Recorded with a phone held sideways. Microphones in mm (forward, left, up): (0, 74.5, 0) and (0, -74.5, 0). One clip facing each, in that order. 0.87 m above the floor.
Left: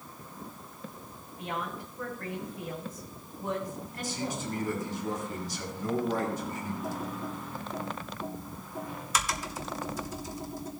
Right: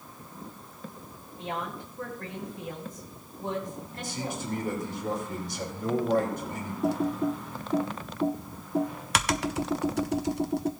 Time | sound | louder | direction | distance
1.4 | a woman speaking | right 1 dB | 25° right (ahead or behind) | 4 m
3.9 | a man speaking | even | 65° right (ahead or behind) | 3.5 m
6.8 | typing on a keyboard | right 9 dB | 70° right (ahead or behind) | 0.7 m